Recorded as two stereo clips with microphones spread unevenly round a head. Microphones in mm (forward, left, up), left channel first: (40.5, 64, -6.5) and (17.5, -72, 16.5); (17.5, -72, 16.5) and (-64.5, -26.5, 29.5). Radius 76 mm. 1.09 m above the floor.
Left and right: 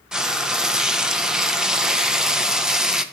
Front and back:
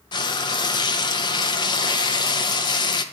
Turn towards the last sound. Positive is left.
turn(degrees=-10)